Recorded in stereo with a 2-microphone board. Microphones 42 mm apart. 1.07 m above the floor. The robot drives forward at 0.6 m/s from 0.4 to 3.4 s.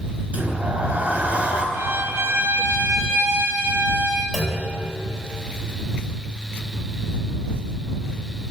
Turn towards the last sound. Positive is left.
turn(degrees=-5)  # may be behind; listen again after turning